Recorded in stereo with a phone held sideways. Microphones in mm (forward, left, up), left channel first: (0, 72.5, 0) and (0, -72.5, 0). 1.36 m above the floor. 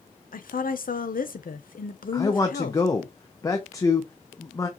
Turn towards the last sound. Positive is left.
turn(degrees=25)  # may be behind; listen again after turning